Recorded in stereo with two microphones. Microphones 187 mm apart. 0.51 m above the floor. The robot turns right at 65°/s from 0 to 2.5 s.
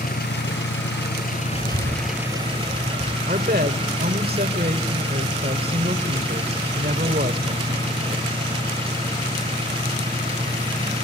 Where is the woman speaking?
55° right (ahead or behind), 1.8 m.